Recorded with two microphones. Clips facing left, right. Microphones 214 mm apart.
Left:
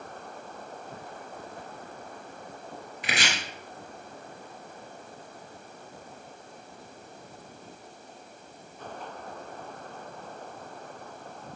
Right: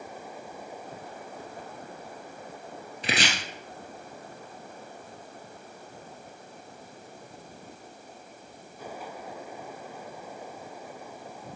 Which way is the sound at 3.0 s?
30° right (ahead or behind).